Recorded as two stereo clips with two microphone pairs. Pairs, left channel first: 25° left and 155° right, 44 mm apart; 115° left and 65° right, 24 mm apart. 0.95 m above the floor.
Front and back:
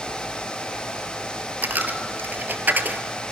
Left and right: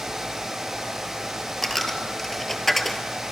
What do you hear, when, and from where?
1.6 s a dropped coin: 170° right, 1.3 m